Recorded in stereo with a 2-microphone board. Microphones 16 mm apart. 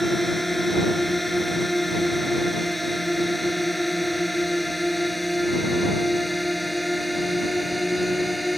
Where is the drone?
5° left (ahead or behind); by 8.6 s 5° right (ahead or behind).